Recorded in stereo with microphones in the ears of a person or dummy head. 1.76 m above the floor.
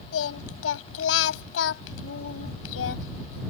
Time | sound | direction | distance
0.1 | singing | 80° left | ?